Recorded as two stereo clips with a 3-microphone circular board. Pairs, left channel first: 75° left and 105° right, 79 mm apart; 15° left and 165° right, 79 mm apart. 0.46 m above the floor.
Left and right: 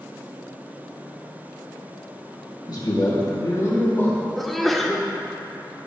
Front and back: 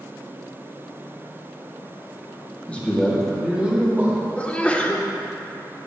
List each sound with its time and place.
2.7 s a man speaking: 85° left, 2.5 m; by 4.2 s 135° left, 3 m
4.4 s a sneeze: 5° right, 0.9 m